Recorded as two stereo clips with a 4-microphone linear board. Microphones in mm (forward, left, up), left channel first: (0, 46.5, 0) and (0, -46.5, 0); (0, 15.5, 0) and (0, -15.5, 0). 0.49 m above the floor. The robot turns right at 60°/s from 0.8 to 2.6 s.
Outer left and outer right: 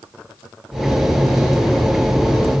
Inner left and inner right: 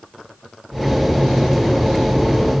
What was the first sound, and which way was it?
Only background noise.